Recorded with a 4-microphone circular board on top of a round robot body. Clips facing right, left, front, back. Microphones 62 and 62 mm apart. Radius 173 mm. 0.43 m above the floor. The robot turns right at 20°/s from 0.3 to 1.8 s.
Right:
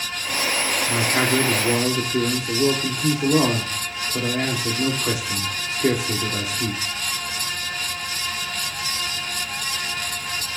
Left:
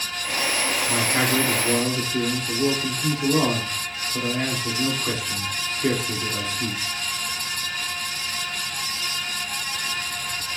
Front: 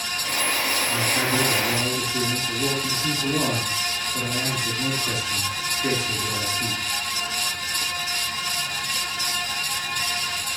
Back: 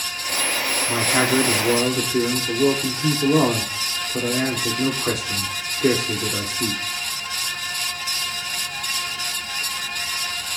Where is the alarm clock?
I don't hear an alarm clock.